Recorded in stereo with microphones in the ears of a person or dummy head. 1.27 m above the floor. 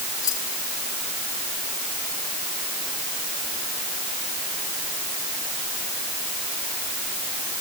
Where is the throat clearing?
I don't hear throat clearing.